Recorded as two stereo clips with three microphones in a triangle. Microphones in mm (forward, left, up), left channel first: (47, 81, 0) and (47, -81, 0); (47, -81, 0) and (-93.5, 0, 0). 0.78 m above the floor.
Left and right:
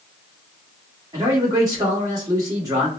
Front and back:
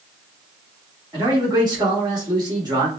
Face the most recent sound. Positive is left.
turn(degrees=-150)